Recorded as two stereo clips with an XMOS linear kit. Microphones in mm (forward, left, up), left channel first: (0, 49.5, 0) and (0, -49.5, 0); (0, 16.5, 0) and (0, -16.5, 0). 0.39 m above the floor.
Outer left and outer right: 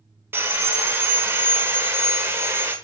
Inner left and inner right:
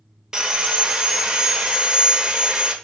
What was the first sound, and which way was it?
Sawing, 25° right (ahead or behind).